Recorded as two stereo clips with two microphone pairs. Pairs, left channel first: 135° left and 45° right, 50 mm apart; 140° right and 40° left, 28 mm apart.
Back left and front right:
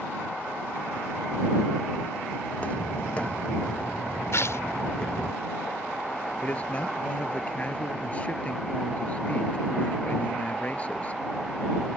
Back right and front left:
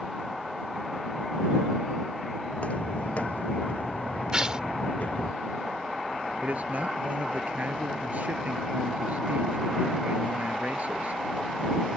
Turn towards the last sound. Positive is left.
turn(degrees=70)